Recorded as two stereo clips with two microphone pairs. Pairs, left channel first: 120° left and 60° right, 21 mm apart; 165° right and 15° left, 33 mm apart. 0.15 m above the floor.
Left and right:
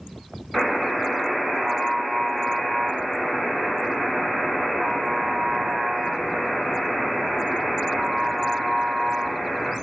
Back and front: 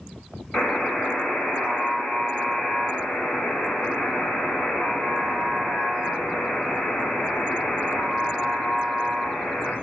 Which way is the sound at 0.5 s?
140° right.